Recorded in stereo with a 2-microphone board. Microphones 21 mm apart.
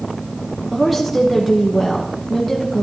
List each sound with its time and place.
0.7 s a woman speaking: 5° right (ahead or behind), 1.1 m